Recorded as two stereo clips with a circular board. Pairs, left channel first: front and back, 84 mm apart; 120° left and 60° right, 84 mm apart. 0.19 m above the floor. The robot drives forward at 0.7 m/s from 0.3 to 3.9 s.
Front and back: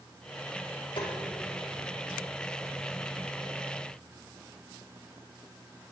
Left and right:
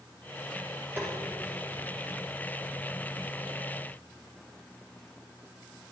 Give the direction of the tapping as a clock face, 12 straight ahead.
12 o'clock.